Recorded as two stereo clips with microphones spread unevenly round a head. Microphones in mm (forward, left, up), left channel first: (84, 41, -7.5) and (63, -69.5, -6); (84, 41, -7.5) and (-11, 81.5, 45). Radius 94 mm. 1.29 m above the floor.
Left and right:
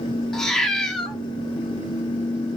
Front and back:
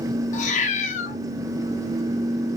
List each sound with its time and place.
0.3 s a cat meowing: 5° right, 0.6 m